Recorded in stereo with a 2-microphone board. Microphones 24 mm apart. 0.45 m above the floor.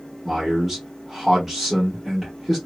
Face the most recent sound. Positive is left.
turn(degrees=-15)  # may be behind; listen again after turning